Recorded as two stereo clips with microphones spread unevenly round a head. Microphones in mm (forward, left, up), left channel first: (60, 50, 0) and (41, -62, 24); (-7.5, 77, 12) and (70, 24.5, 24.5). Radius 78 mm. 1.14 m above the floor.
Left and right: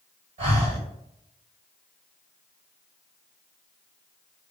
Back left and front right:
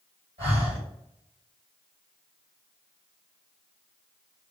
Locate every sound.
0.4 s breathing: 70° right, 1.5 m